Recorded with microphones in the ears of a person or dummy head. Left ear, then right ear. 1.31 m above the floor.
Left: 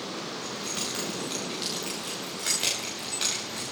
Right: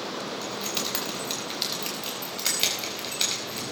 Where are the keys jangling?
30° right (ahead or behind), 4.5 m; by 3.6 s 20° right (ahead or behind), 5.5 m.